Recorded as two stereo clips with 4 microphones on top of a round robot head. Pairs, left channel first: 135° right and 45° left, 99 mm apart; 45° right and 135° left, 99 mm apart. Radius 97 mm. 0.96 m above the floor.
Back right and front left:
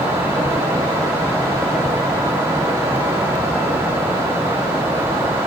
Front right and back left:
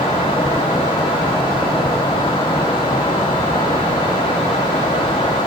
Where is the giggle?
I don't hear a giggle.